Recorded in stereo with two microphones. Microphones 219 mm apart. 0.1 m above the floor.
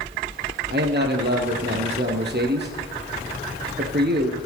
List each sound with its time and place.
0.7 s a man speaking: 50° right (ahead or behind), 2.5 m